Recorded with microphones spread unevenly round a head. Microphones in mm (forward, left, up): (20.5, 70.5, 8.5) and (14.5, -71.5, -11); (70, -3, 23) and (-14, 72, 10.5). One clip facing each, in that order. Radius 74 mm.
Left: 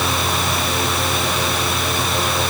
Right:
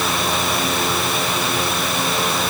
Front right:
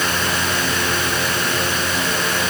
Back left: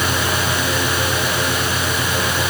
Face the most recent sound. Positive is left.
No sound to turn to.